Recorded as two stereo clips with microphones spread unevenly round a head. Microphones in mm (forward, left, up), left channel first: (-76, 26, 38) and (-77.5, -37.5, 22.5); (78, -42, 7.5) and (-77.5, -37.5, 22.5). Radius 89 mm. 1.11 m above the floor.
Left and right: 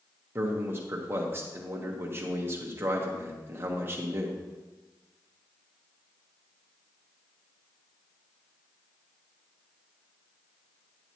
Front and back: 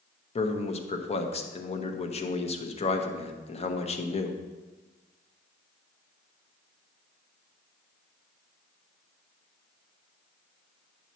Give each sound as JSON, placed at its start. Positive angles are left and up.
{"t": 0.3, "sound": "a man speaking", "azimuth_deg": -40, "distance_m": 1.0}